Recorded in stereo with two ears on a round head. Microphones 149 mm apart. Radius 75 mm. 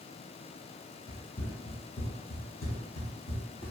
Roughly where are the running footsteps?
Left.